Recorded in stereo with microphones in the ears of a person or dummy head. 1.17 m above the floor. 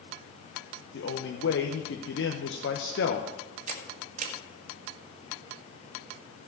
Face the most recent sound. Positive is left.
turn(degrees=-45)  # may be behind; listen again after turning